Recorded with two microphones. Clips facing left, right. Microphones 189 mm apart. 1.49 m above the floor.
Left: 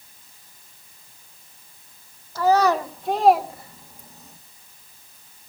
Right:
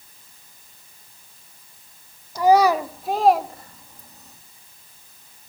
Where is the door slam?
No door slam in this recording.